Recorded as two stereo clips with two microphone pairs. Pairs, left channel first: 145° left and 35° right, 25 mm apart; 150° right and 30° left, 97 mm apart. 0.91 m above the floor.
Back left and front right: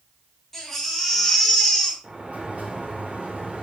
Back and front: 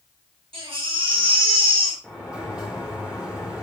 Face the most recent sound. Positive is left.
turn(degrees=-50)